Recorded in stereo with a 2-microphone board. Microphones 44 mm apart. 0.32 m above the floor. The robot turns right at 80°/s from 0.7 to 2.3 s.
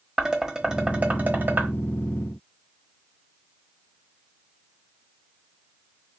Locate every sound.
0.2 s dishes clattering: 15° right (ahead or behind), 0.9 m; by 1.7 s 45° right (ahead or behind), 0.9 m